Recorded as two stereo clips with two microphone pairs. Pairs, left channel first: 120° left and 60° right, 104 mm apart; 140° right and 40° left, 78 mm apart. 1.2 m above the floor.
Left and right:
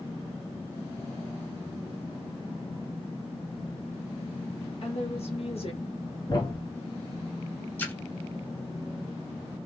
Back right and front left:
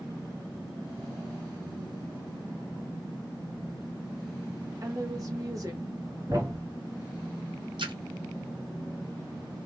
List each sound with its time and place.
4.8 s a woman speaking: 90° left, 1.7 m
6.3 s a thud: 80° left, 1.7 m
7.8 s a splash: 45° left, 1.2 m